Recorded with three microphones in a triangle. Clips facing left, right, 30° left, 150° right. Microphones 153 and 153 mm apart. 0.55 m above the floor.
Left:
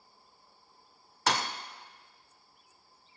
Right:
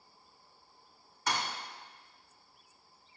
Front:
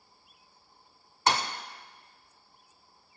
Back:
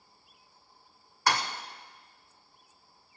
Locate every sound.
1.3 s a thud: 95° left, 0.6 m